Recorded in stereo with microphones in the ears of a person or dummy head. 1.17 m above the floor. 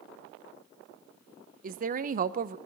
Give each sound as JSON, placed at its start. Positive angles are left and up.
{"t": 1.6, "sound": "a woman speaking", "side_deg": -45, "distance_m": 0.8}